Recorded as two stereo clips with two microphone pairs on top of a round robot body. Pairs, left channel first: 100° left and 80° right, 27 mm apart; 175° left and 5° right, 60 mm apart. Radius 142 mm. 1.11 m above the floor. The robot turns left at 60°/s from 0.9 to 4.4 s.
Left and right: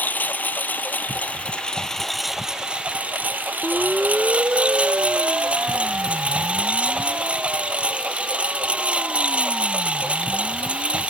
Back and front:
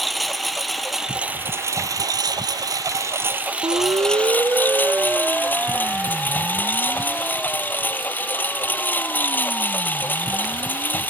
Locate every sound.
0.0 s a lawn mower: 85° left; by 11.1 s 125° right
3.6 s a siren: 5° left; by 11.0 s 115° right